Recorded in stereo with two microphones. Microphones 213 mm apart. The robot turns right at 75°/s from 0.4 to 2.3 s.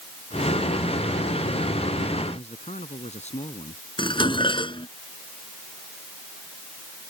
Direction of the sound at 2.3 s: 30° left (ahead or behind).